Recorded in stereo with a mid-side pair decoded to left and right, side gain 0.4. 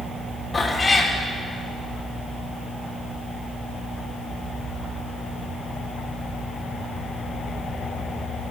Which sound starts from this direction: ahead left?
A cat meowing, at 0.5 s.